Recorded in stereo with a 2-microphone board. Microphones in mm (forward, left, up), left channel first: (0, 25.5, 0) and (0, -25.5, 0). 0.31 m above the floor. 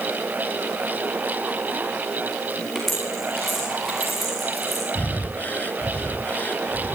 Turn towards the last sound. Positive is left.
turn(degrees=35)  # may be behind; listen again after turning